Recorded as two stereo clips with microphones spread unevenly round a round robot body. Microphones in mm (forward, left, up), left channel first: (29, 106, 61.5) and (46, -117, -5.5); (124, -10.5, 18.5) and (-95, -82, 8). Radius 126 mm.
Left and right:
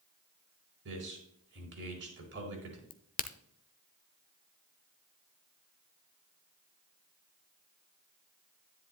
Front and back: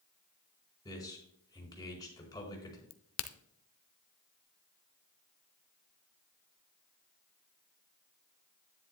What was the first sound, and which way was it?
A man speaking, 55° right.